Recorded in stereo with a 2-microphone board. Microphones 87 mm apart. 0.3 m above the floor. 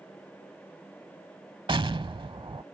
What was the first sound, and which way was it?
An explosion, 65° right (ahead or behind).